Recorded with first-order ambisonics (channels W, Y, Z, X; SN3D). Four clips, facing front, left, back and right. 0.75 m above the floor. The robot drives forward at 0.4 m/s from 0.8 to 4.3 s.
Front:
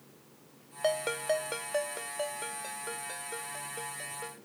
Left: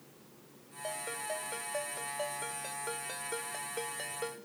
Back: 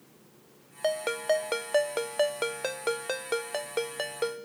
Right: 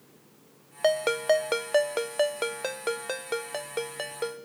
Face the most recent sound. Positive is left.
turn(degrees=-155)